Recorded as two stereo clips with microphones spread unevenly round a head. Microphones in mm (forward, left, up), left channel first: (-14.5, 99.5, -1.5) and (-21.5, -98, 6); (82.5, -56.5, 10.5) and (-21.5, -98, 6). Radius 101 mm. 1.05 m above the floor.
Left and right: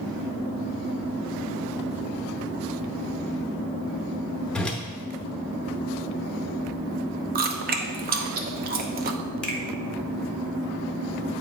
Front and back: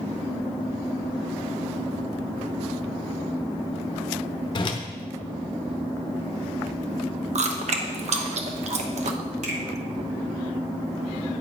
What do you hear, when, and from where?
4.5 s a whoosh: straight ahead, 0.7 m
7.3 s chewing: 135° right, 0.8 m
9.4 s a finger snap: 170° left, 1.5 m